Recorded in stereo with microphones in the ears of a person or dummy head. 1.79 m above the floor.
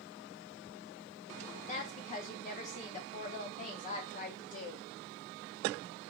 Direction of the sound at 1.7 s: 35° left (ahead or behind).